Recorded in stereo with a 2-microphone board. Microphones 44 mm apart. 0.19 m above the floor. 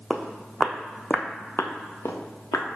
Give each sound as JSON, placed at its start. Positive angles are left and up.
{"t": 0.1, "sound": "footsteps", "side_deg": -5, "distance_m": 0.8}